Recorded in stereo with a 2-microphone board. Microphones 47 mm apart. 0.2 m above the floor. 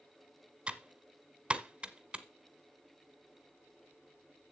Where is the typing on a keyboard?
25° right (ahead or behind), 0.7 m.